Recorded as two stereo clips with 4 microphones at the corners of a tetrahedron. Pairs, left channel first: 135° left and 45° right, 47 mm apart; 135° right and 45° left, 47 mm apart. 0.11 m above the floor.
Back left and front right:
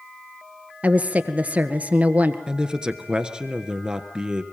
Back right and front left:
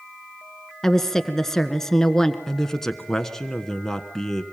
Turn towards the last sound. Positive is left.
turn(degrees=-75)